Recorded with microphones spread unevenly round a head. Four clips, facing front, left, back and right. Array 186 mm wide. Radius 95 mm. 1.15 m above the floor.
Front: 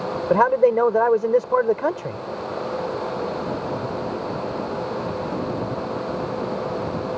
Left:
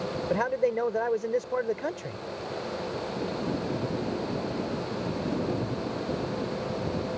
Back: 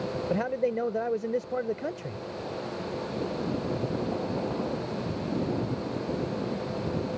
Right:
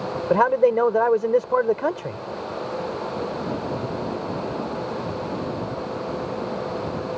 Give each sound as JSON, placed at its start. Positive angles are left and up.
{"t": 0.3, "sound": "a man speaking", "azimuth_deg": -35}